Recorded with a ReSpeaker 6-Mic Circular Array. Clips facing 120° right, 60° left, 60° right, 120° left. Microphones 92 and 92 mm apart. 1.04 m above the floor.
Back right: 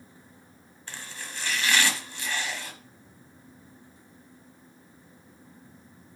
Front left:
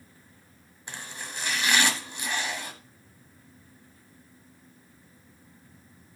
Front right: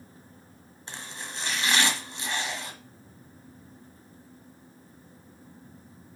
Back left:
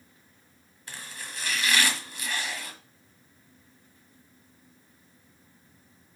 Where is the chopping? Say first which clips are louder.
Front left 1 dB, front right 2 dB; 5° right, 1.2 m.